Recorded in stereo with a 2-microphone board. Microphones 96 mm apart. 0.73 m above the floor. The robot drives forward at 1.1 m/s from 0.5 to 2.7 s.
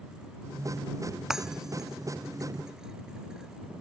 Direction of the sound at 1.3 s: 5° right (ahead or behind).